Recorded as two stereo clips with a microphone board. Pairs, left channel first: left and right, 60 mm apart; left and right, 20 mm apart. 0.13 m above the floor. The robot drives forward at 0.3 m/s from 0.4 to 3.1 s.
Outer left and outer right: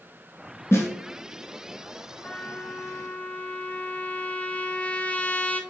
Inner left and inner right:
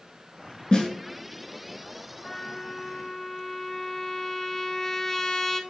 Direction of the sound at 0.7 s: 45° left (ahead or behind).